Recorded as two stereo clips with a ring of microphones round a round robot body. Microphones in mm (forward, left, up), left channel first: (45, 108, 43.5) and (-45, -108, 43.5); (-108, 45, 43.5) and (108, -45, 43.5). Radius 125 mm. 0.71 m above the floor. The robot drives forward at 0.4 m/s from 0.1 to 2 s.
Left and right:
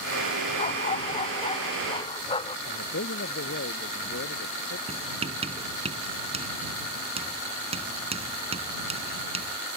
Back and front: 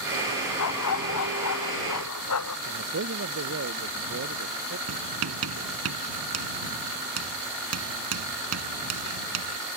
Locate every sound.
0.6 s a dog barking: 130° left; by 2.6 s 135° left
2.7 s a man speaking: 20° left
4.9 s writing: 45° right